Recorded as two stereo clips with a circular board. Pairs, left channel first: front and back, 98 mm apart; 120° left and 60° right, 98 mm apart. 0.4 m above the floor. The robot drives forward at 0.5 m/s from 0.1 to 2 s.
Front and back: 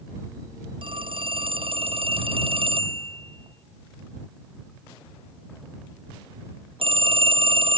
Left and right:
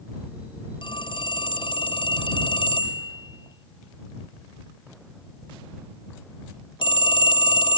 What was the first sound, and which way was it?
A phone ringing, 155° left.